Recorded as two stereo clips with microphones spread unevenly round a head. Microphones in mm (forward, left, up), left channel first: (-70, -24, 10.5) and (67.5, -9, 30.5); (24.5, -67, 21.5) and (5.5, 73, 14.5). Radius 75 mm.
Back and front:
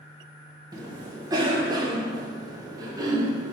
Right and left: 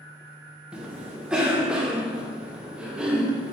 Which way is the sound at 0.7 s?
35° left.